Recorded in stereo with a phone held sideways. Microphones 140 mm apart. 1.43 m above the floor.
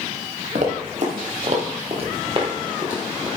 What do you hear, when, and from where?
0.6 s running footsteps: 60° right (ahead or behind), 3 m; by 3.3 s 30° right (ahead or behind), 2 m